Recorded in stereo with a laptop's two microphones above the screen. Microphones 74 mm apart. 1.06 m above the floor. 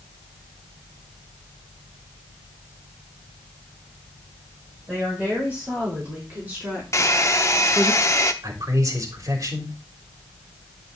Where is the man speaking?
55° right (ahead or behind), 3.5 m.